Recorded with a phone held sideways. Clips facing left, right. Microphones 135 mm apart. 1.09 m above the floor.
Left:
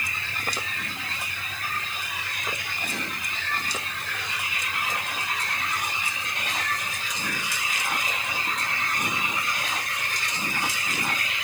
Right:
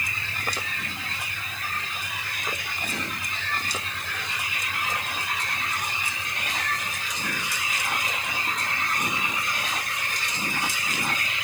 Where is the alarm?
No alarm in this recording.